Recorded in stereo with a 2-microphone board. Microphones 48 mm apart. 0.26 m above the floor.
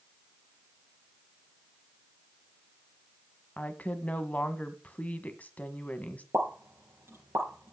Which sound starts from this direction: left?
A woman speaking, at 3.6 s.